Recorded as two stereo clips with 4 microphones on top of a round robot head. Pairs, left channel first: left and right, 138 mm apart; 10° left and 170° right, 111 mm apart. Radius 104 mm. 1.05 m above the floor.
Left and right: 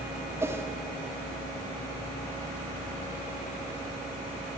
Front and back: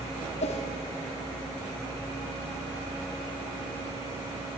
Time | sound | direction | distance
0.4 | a whoosh | 20° right | 1.6 m